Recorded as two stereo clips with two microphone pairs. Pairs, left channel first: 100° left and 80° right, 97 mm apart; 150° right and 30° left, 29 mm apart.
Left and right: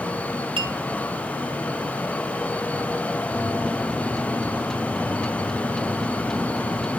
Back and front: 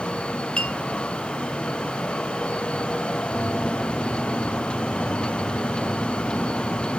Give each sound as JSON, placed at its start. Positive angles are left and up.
{"t": 0.6, "sound": "a clink", "azimuth_deg": -95, "distance_m": 1.3}
{"t": 3.3, "sound": "a microwave", "azimuth_deg": 180, "distance_m": 0.6}